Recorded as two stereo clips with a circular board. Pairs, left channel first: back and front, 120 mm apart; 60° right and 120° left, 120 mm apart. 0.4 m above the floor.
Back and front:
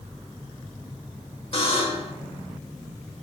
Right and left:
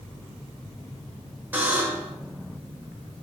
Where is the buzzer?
170° right, 0.9 m.